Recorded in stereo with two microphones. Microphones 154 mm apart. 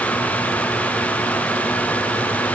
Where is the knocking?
I don't hear knocking.